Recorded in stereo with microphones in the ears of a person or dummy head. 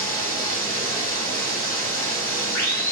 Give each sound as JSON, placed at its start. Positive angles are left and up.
{"t": 0.0, "sound": "running water", "side_deg": 10, "distance_m": 2.0}